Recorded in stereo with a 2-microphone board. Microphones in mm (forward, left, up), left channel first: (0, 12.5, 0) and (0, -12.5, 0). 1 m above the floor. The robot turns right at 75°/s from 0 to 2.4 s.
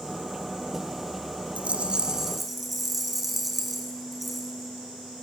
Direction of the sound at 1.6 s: 70° right.